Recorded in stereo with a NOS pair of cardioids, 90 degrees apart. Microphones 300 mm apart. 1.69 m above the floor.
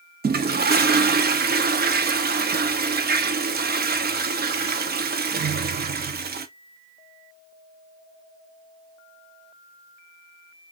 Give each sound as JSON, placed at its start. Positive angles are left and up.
{"t": 0.2, "sound": "a toilet flushing", "azimuth_deg": -35, "distance_m": 0.8}